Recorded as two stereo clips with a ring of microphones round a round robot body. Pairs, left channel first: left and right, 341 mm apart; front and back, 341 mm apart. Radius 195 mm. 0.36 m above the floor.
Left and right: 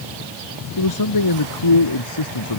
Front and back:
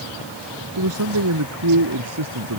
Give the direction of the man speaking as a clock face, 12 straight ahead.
8 o'clock.